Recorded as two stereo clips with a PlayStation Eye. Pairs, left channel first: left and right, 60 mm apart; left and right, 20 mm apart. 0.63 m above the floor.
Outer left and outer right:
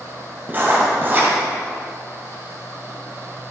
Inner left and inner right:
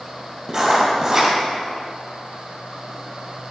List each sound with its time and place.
0.5 s writing: 30° right (ahead or behind), 2 m